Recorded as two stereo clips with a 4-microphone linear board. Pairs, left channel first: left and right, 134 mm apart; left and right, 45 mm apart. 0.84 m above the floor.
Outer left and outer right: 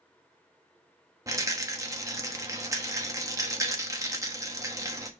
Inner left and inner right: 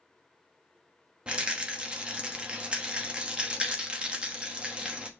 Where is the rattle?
25° right (ahead or behind), 1.1 m.